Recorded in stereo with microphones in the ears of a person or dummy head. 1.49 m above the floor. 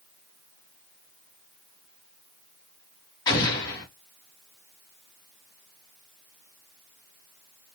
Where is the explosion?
15° left (ahead or behind), 1.7 m.